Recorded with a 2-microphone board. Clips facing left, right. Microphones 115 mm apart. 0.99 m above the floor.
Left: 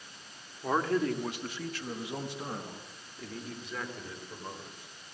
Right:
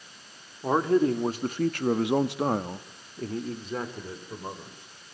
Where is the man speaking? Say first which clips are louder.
Right 6 dB; 20° right (ahead or behind), 2 m; by 4.9 s 25° right (ahead or behind), 3.5 m.